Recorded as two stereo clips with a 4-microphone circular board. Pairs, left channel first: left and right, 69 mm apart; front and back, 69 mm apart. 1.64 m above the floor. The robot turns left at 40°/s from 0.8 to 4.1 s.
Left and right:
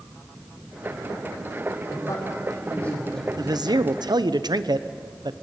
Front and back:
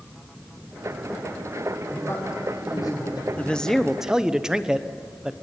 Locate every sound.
1.9 s a man speaking: 55° left, 6.5 m; by 3.5 s 10° right, 6.5 m
3.4 s a man speaking: 70° right, 0.9 m; by 5.3 s 100° right, 0.9 m